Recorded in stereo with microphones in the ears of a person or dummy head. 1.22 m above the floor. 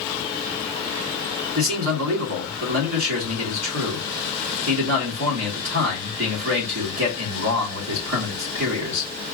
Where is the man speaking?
65° right (ahead or behind), 2.5 m.